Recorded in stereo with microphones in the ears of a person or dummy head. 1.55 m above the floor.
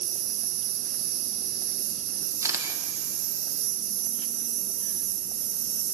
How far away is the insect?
About 2 m.